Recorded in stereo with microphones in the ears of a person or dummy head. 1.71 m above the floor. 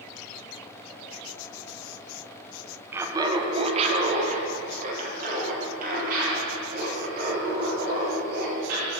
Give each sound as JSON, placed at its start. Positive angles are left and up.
{"t": 2.9, "sound": "laughter", "side_deg": -10, "distance_m": 1.0}